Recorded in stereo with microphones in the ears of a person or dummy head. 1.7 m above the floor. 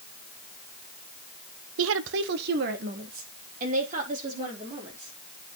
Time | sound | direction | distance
1.8 | a woman speaking | 85° right | 0.8 m